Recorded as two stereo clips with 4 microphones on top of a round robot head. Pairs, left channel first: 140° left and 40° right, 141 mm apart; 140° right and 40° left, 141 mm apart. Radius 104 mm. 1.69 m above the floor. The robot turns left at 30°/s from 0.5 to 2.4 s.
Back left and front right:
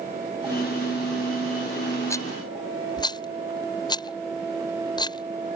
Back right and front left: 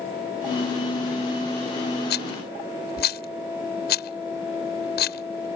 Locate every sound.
2.1 s a rattle: 150° right; by 5.5 s 160° right